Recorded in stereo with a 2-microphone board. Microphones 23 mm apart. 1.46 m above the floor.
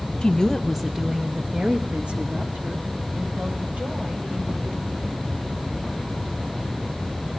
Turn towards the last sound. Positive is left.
turn(degrees=-80)